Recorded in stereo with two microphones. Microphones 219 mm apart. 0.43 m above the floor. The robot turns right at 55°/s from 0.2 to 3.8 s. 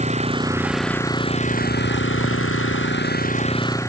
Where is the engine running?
30° right; by 3.9 s 165° left.